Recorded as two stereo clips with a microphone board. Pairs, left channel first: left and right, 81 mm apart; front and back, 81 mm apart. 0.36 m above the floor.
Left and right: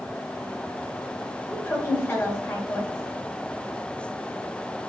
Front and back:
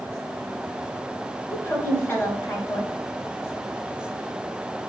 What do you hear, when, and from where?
1.5 s a woman speaking: 50° left, 1.7 m